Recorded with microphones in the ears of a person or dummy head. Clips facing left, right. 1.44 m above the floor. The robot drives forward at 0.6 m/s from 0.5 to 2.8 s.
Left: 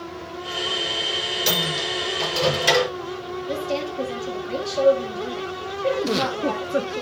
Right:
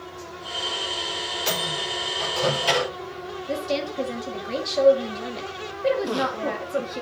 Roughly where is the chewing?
No chewing in this recording.